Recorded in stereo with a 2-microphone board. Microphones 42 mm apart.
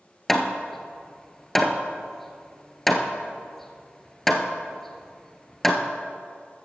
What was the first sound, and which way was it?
Hammering, 5° left (ahead or behind).